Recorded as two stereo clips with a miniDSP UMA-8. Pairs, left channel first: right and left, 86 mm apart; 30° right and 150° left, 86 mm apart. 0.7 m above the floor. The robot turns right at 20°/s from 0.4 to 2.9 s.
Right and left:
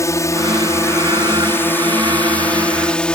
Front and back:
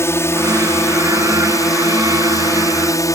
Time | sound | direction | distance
0.0 | a drone | 70° right | ?